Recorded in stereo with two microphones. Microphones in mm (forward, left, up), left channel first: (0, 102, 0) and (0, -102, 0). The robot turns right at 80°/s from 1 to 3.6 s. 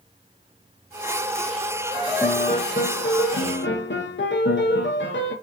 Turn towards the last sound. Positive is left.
turn(degrees=115)